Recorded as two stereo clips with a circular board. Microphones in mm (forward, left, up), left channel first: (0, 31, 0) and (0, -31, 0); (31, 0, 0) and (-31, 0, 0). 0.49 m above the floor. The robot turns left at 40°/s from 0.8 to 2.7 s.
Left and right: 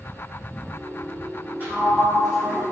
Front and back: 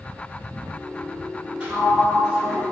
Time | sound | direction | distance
1.6 | a sliding door | 125° right | 1.5 m